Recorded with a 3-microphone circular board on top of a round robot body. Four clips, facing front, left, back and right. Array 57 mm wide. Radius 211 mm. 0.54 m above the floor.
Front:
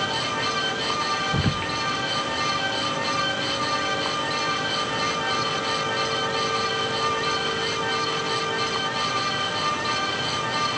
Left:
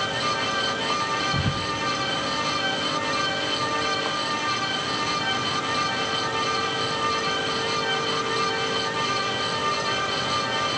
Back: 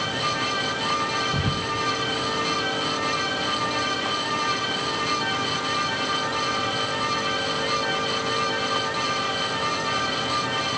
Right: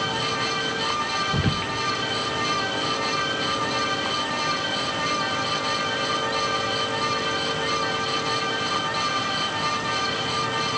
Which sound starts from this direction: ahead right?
Whispering, at 1.3 s.